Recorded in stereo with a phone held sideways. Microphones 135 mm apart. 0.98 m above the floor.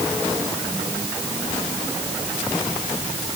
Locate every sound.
Only background noise.